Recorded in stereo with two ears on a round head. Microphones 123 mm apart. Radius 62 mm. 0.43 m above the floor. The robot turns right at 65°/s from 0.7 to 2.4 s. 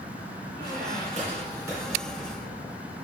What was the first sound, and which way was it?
A squeak, 80° right.